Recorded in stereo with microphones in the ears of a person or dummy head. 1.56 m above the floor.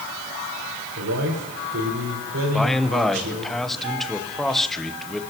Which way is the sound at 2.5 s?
Centre (ahead or behind).